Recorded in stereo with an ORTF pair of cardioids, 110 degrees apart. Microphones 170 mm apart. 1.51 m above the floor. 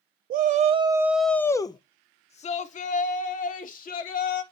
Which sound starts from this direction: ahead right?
A shout, at 0.3 s.